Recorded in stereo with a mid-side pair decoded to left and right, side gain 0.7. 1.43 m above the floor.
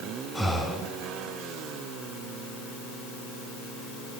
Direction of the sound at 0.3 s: 15° left.